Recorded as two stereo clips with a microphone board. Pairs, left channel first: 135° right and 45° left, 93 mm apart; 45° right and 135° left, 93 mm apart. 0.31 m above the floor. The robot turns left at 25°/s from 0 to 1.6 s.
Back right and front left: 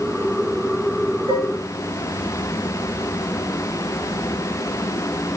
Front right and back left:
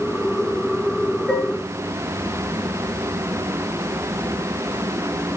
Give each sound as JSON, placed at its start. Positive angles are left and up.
{"t": 1.3, "sound": "dishes clattering", "azimuth_deg": 40, "distance_m": 2.5}